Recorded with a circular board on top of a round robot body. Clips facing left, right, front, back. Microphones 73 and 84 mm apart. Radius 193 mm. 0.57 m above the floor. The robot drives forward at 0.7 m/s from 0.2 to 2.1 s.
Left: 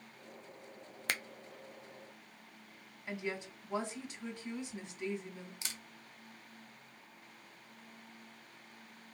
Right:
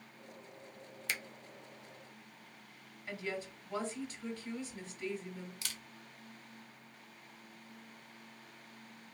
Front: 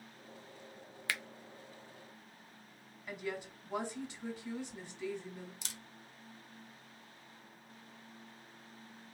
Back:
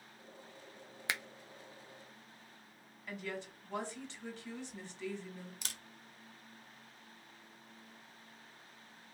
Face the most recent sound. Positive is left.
turn(degrees=155)